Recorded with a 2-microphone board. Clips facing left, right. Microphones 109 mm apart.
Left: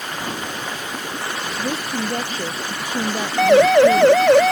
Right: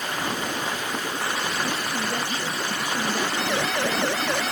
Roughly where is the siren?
Left.